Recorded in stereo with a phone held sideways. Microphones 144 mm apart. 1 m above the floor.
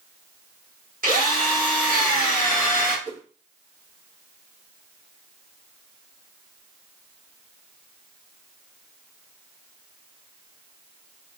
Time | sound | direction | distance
1.0 | a drill | 80° right | 1.4 m
3.0 | a whoosh | 60° right (ahead or behind) | 1.1 m